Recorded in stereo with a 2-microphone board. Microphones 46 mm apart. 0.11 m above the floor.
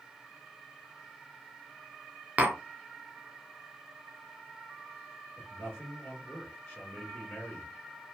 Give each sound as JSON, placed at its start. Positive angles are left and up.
{"t": 2.4, "sound": "tapping", "side_deg": -35, "distance_m": 0.8}
{"t": 5.4, "sound": "a man speaking", "side_deg": 20, "distance_m": 1.8}